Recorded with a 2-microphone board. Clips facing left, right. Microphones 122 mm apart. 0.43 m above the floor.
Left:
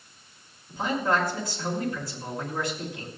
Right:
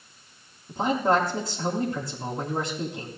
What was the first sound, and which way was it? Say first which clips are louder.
A man speaking: right 3 dB; 45° right (ahead or behind).